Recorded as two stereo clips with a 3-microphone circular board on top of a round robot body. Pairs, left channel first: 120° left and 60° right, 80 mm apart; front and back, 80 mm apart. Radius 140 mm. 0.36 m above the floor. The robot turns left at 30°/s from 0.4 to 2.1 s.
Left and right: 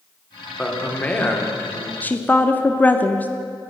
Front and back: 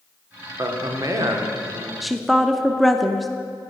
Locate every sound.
0.6 s a man speaking: 160° right, 1.7 m; by 1.9 s 160° left, 1.7 m
2.0 s a woman speaking: 95° left, 0.8 m; by 3.3 s 90° left, 0.8 m